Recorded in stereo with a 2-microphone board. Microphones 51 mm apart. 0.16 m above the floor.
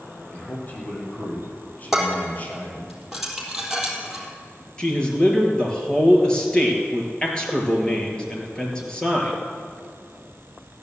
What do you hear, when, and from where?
0.3 s a man speaking: 30° left (ahead or behind), 5.5 m
1.9 s dishes clattering: 5° right (ahead or behind), 3.5 m
4.8 s a man speaking: 15° left (ahead or behind), 3.5 m